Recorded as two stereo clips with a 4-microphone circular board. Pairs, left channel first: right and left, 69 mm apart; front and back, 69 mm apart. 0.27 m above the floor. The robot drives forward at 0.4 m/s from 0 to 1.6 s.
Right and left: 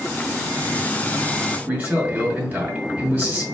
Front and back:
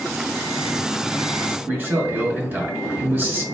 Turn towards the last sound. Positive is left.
turn(degrees=140)